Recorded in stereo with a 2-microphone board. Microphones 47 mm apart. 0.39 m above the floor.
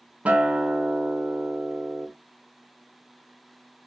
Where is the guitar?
30° right (ahead or behind), 0.6 m.